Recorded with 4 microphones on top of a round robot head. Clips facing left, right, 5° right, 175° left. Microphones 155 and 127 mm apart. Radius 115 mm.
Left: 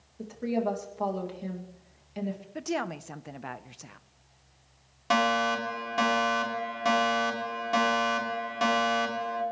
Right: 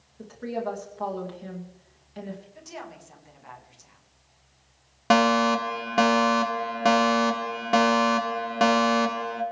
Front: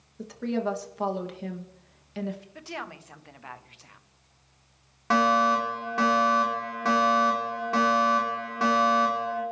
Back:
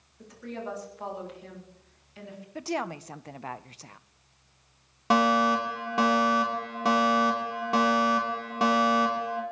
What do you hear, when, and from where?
0.2 s a woman speaking: 15° left, 2.5 m
2.5 s a woman speaking: 120° left, 0.9 m
5.1 s a fire alarm: 115° right, 3 m